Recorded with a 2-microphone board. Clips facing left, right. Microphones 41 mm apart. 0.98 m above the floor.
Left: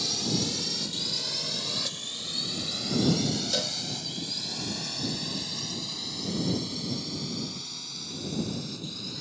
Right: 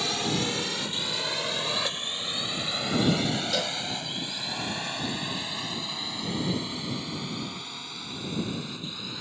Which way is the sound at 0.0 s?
40° right (ahead or behind).